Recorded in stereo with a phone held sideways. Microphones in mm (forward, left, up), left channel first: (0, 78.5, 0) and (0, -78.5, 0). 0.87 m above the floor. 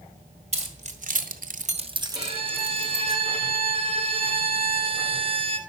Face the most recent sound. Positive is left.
turn(degrees=-35)  # may be behind; listen again after turning